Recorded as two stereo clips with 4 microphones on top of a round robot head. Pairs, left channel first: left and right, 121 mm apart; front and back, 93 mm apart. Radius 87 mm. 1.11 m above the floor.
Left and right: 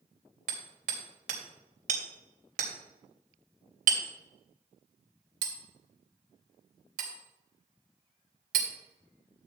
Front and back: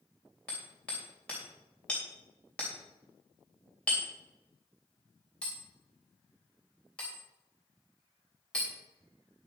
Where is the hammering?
85° right, 3 m.